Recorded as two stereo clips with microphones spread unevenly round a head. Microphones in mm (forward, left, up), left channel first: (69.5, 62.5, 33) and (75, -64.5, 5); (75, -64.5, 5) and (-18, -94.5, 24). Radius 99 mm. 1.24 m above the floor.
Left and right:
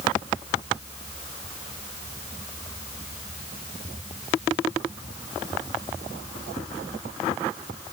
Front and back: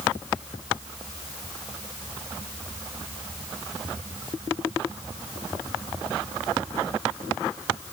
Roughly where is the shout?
I don't hear a shout.